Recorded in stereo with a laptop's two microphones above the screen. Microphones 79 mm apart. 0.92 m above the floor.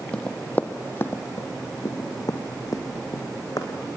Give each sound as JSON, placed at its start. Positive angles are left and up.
{"t": 0.1, "sound": "running footsteps", "side_deg": 15, "distance_m": 1.5}